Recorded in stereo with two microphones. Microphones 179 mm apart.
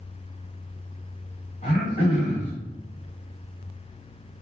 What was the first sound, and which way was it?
Throat clearing, 45° left (ahead or behind).